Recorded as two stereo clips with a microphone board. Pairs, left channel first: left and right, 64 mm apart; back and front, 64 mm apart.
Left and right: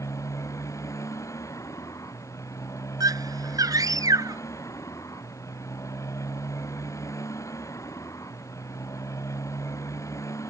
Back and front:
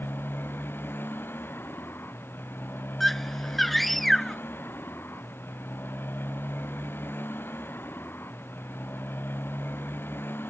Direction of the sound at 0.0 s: 125° left.